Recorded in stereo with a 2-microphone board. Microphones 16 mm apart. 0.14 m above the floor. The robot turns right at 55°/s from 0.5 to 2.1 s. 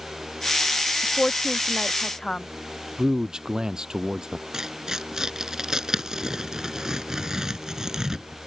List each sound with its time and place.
1.0 s a woman speaking: 80° left; by 2.5 s 40° left (ahead or behind)
3.0 s a man speaking: 55° right (ahead or behind)
4.5 s tearing paper: 40° right (ahead or behind)